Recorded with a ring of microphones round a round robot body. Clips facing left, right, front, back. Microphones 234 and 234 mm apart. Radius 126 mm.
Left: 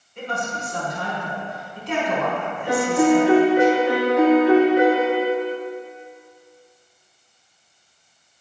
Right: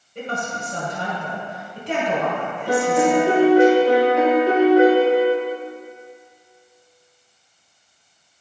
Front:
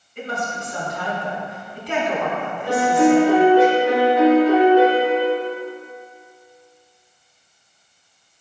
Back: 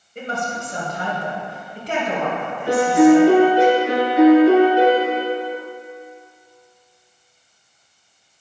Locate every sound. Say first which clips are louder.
0.1 s a woman speaking: right 1 dB, back 1 dB; 130° right, 2 m
2.7 s a piano: left 1 dB, back 4 dB; 140° right, 2.5 m